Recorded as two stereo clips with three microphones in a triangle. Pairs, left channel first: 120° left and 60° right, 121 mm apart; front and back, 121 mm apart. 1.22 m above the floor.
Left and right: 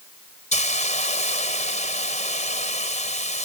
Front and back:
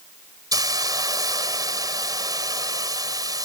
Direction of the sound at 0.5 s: 120° left.